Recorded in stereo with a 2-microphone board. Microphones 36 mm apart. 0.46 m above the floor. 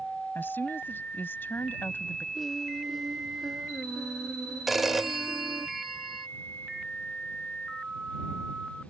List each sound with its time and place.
0.3 s a woman speaking: 65° left (ahead or behind)
2.4 s singing: centre (ahead or behind)
4.7 s a phone ringing: 5° right (ahead or behind)